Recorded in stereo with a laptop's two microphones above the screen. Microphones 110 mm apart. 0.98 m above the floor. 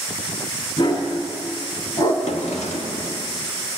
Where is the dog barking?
50° left (ahead or behind), 3 m; by 2.1 s 35° left (ahead or behind), 3 m.